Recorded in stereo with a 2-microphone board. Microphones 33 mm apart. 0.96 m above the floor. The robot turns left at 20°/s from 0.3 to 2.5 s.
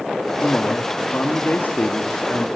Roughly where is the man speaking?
Behind left.